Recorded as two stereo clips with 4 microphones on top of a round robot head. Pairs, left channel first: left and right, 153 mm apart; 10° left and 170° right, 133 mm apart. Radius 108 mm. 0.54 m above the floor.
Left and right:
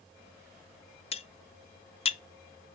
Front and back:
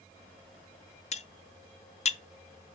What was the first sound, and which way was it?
Cutlery clinking, 45° left.